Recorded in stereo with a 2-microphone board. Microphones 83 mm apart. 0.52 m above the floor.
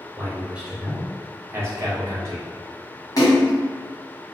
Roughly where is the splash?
Left.